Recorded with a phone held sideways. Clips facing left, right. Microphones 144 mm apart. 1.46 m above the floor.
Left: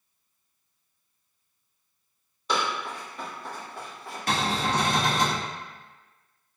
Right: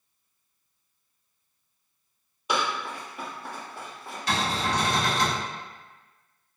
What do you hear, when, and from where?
2.5 s running footsteps: 10° right (ahead or behind), 1.7 m; by 4.2 s centre (ahead or behind), 1.4 m
4.3 s a cupboard door: 55° left (ahead or behind), 0.8 m